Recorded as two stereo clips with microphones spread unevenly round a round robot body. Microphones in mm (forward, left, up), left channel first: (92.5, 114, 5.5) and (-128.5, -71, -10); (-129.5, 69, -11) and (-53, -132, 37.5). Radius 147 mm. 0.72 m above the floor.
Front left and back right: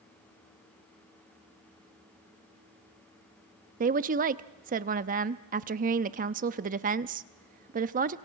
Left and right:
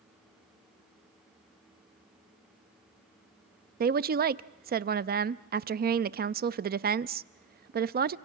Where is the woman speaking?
105° right, 0.6 m.